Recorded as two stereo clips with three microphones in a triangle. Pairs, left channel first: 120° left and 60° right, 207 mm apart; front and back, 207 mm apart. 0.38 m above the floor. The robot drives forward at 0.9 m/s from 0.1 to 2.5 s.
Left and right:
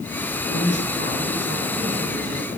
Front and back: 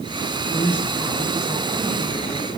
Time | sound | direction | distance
0.5 | a man speaking | 60° right | 4 m